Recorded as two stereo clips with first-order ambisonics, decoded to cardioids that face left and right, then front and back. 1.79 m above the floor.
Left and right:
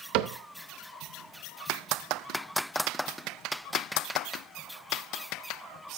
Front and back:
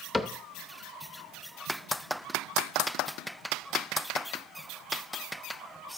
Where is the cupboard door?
85° right, 0.5 m.